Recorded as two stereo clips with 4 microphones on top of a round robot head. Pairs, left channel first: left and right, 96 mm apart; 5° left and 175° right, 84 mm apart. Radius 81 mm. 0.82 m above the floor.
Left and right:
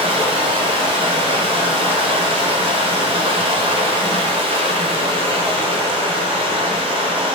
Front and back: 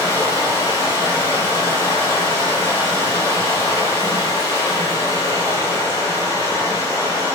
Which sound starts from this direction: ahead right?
Running water, at 0.0 s.